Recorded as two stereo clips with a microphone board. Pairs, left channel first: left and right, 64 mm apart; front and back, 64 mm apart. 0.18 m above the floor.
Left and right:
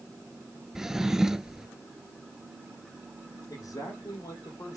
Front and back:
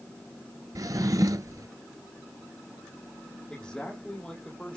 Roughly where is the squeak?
No squeak in this recording.